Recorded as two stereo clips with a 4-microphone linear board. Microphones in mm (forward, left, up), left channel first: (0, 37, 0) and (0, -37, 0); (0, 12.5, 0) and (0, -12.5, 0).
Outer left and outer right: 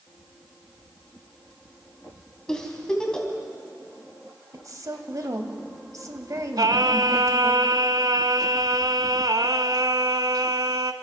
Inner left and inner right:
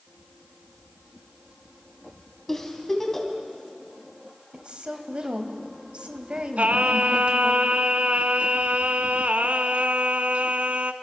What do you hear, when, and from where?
2.5 s a giggle: 10° left (ahead or behind), 3 m
4.5 s a woman speaking: 50° right (ahead or behind), 2 m
6.6 s singing: 70° right (ahead or behind), 0.8 m